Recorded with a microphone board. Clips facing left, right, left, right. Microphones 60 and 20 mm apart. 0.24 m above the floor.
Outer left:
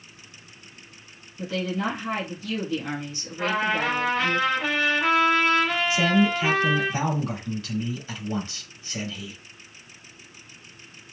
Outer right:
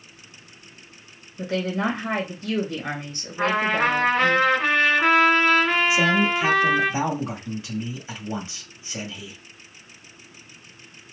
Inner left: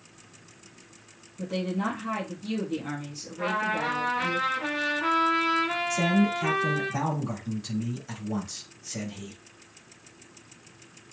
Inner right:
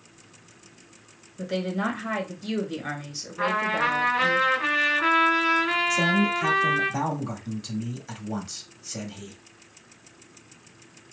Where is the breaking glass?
I don't hear breaking glass.